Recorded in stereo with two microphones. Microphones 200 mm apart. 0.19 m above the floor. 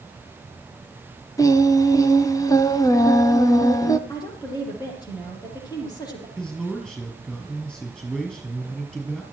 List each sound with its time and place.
1.4 s singing: 20° left (ahead or behind), 1.4 m
4.1 s a woman speaking: 20° left (ahead or behind), 7 m
6.4 s a man speaking: 5° left (ahead or behind), 5 m